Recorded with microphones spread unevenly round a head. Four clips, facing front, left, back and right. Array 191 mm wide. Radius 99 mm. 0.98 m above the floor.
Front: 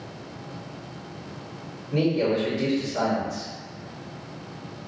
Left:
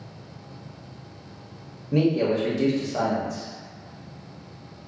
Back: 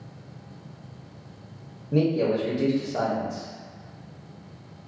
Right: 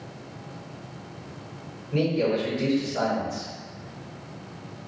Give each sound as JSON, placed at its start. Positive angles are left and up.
{"t": 1.9, "sound": "a man speaking", "azimuth_deg": 130, "distance_m": 1.1}